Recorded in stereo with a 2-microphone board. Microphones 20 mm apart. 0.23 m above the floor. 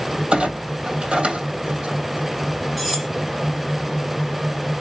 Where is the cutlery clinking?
10° right (ahead or behind), 1.1 m.